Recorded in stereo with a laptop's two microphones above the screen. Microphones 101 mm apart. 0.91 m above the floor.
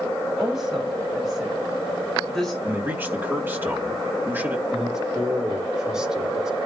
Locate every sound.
0.4 s a woman speaking: 5° right (ahead or behind), 6.5 m; by 2.5 s 5° left (ahead or behind), 5 m
2.6 s a man speaking: 20° right (ahead or behind), 2 m
4.7 s a man speaking: 10° right (ahead or behind), 5 m